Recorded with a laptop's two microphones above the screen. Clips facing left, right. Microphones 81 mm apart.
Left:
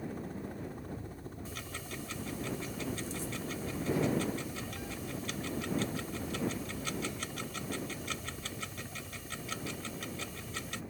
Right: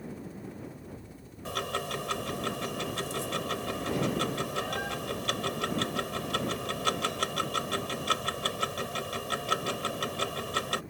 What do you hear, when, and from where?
0.0 s a helicopter: 50° left (ahead or behind); by 10.9 s 5° right (ahead or behind)
1.4 s ticking: 80° right